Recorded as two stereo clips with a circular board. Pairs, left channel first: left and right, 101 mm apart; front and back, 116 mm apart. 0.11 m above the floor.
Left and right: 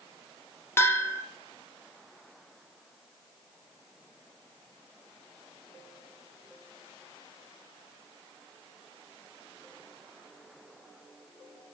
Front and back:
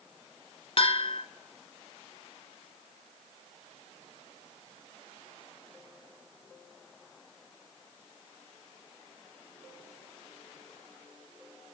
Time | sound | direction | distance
0.8 | a bell | 25° left | 1.0 m